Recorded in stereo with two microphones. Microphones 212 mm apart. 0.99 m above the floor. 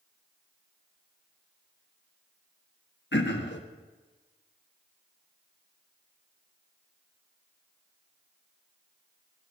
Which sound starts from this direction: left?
Throat clearing, at 3.1 s.